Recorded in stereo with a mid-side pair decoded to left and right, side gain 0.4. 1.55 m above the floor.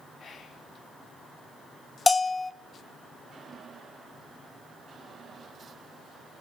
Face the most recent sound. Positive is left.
turn(degrees=30)